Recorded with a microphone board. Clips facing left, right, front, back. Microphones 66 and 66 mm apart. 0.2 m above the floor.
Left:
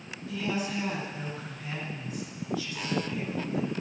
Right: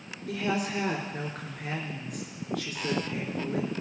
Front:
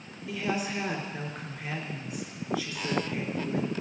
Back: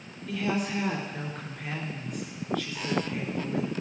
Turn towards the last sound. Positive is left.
turn(degrees=-80)